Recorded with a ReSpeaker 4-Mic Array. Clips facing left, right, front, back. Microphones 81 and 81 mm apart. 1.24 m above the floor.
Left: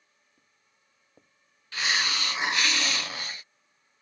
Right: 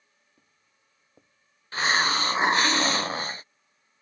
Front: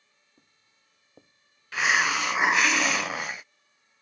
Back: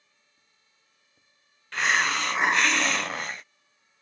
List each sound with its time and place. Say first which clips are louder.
0.4 s footsteps: right 1 dB, front 3 dB; 15° right; by 2.7 s 15° left
1.7 s a hiss: right 5 dB, even; 85° right